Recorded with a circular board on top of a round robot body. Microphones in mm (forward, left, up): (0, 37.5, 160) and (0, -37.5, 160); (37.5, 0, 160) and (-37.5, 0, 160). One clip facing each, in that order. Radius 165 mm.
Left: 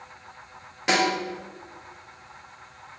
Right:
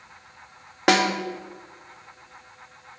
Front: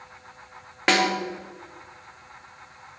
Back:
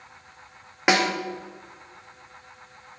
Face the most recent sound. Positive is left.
turn(degrees=-100)